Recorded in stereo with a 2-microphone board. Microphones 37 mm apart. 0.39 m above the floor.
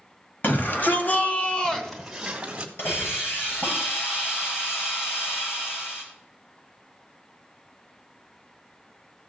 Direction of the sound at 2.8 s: 80° left.